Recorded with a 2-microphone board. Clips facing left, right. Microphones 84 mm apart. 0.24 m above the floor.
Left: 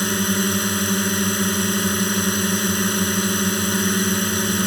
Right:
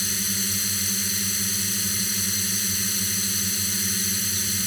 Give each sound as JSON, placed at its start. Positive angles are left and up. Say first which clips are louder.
{"t": 0.0, "sound": "a drone", "louder": "left 12 dB", "side_deg": 55}